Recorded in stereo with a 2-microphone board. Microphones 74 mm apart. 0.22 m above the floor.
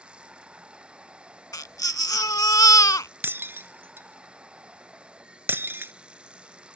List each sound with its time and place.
0.0 s running water: 15° right (ahead or behind)
1.5 s a baby crying: 50° left (ahead or behind)
3.2 s breaking glass: 30° right (ahead or behind)